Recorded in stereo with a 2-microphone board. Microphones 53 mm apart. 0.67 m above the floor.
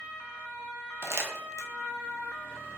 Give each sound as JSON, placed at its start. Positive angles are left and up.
{"t": 1.0, "sound": "crumpling", "side_deg": -60, "distance_m": 0.6}